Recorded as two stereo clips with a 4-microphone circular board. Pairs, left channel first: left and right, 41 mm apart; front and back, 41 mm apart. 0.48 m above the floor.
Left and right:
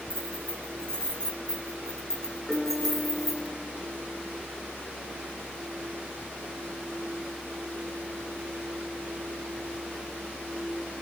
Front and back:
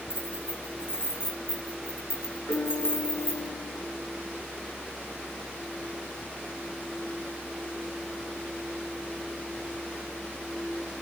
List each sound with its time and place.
0.1 s keys jangling: 25° left, 6 m; by 3.5 s 5° right, 3 m
2.5 s a piano: straight ahead, 4 m